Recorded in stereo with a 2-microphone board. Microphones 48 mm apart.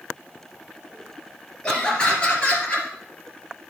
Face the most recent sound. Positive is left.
turn(degrees=25)  # may be behind; listen again after turning